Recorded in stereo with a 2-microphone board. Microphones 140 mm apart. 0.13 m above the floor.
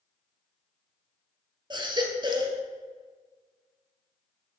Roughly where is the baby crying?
Right.